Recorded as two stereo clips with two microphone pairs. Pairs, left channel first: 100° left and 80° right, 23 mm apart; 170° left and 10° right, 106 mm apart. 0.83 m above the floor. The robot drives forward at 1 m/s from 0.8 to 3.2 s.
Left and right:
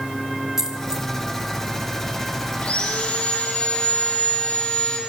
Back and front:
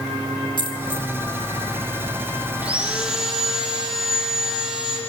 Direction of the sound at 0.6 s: 150° right.